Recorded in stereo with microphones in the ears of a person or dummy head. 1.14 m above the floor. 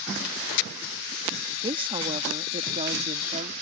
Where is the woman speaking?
25° right (ahead or behind); by 3.5 s 35° right (ahead or behind).